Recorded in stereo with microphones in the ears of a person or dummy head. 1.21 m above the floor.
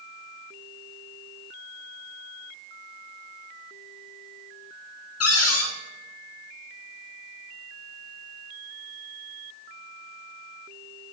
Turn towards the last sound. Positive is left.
turn(degrees=80)